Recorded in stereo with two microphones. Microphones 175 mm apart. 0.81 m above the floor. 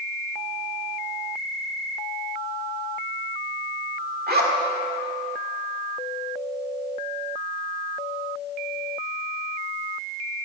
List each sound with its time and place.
4.3 s a zipper: 65° right (ahead or behind), 1.8 m